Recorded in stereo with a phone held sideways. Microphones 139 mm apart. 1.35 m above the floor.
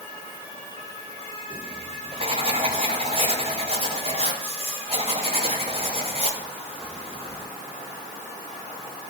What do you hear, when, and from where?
1.5 s writing: 45° right (ahead or behind), 6 m